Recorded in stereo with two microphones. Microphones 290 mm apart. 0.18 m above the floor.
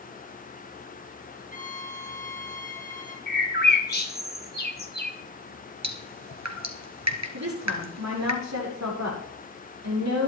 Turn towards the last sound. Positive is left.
turn(degrees=-65)  # may be behind; listen again after turning